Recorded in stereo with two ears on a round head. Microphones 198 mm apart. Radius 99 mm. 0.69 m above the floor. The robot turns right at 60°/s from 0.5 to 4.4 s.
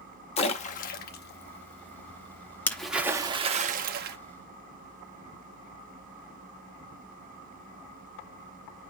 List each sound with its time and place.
0.4 s a splash: 30° left (ahead or behind), 0.8 m; by 4.2 s 45° right (ahead or behind), 0.8 m